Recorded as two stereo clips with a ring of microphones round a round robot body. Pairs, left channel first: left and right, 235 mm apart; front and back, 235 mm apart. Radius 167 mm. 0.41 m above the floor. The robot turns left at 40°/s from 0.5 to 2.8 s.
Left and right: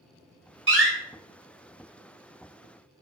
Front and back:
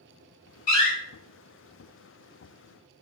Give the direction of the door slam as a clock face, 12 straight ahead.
2 o'clock.